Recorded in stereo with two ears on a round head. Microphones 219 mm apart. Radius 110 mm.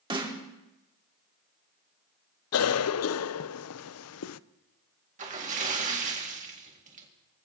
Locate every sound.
0.1 s a snare drum: 20° right (ahead or behind), 1.9 m
2.5 s a cough: 65° left (ahead or behind), 0.5 m
5.2 s a splash: 30° right (ahead or behind), 1.9 m